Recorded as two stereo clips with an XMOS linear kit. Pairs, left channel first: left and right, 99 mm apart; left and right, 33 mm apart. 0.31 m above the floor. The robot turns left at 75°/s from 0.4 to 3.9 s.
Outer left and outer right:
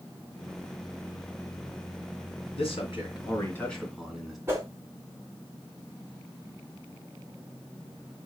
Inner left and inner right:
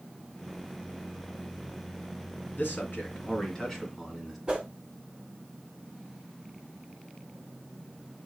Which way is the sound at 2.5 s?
100° left.